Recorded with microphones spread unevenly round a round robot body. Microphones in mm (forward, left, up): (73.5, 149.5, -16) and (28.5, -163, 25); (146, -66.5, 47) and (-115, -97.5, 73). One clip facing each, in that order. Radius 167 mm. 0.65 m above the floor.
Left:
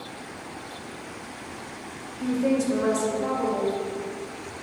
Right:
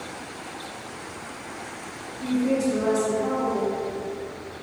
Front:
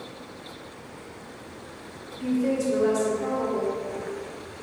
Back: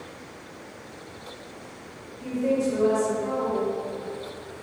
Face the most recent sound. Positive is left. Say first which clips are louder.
# right 1 dB, front 1 dB
turn(degrees=80)